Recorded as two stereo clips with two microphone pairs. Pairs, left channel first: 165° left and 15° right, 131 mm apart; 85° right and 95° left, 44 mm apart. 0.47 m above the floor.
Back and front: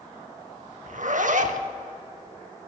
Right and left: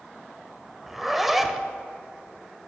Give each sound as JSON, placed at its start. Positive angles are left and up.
{"t": 0.9, "sound": "a zipper", "azimuth_deg": 15, "distance_m": 0.6}